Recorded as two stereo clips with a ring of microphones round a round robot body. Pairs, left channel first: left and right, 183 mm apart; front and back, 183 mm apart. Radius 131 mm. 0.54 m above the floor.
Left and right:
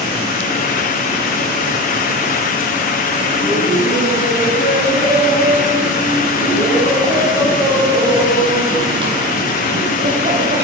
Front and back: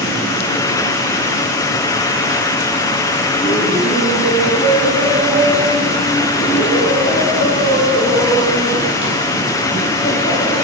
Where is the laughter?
10° left, 6.5 m; by 10.6 s 50° right, 3.5 m.